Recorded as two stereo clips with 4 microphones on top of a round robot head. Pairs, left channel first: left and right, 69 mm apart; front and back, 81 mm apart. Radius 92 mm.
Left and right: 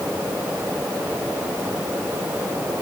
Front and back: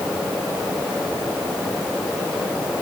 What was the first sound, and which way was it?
Only background noise.